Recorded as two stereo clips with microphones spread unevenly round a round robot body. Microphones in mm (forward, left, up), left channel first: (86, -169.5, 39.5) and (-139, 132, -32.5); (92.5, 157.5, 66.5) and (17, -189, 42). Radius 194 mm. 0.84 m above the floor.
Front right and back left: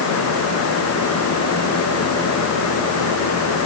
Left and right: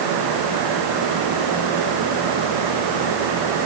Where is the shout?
No shout in this recording.